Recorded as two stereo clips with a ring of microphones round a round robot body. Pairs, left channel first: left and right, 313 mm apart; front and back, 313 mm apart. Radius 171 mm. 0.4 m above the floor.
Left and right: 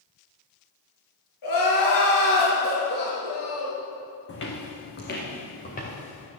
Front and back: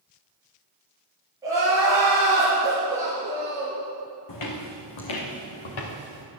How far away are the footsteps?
About 1.7 m.